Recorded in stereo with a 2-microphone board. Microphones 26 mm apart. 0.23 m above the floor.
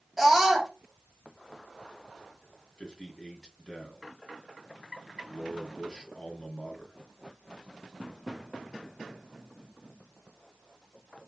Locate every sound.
0.2 s a scream: 5° right (ahead or behind), 1.0 m
2.8 s a man speaking: 30° left (ahead or behind), 1.6 m